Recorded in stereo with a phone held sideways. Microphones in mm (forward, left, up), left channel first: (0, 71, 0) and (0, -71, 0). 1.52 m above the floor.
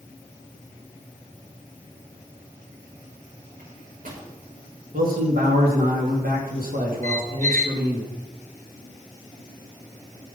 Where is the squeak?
60° right (ahead or behind), 0.9 m.